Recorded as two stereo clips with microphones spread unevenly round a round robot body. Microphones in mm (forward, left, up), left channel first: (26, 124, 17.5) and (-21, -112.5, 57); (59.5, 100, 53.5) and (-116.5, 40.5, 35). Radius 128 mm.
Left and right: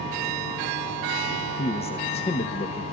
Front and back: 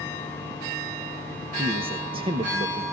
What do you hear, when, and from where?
1.6 s a man speaking: 140° left, 1.2 m